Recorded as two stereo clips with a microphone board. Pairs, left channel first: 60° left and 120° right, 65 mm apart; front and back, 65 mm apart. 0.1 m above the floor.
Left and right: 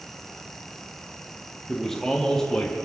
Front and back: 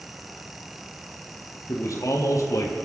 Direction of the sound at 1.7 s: 20° right.